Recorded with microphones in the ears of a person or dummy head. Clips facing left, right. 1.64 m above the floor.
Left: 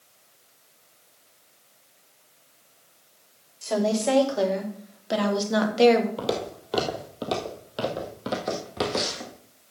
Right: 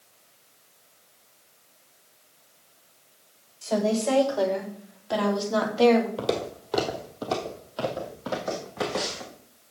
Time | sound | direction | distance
3.6 | a woman speaking | 20° left (ahead or behind) | 4 m
6.2 | footsteps | 5° left (ahead or behind) | 2 m